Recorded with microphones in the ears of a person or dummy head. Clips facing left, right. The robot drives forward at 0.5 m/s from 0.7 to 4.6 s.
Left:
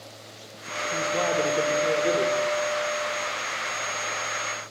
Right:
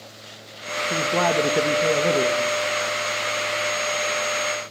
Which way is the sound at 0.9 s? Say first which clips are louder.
Right 4 dB; 85° right.